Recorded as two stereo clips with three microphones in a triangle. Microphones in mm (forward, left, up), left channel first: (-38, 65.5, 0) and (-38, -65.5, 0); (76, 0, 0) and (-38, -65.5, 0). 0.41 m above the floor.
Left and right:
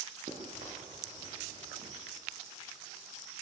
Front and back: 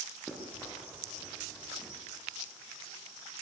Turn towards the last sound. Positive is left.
turn(degrees=-60)